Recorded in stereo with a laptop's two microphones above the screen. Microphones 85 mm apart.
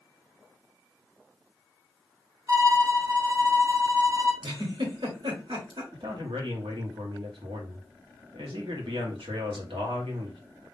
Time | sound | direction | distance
2.5 | a violin | 35° right (ahead or behind) | 0.7 m
4.4 | a giggle | 75° right (ahead or behind) | 1.7 m
5.9 | a man speaking | 80° right | 1.6 m